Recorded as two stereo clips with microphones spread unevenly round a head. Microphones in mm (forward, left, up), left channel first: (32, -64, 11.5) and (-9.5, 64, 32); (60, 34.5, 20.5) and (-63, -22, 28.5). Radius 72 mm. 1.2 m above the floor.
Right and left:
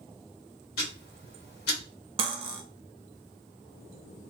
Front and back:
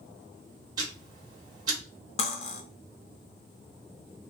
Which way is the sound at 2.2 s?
70° left.